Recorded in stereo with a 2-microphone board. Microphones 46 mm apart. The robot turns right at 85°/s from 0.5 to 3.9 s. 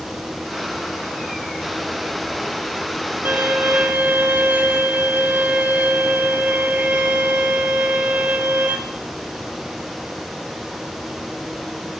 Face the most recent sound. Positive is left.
turn(degrees=-55)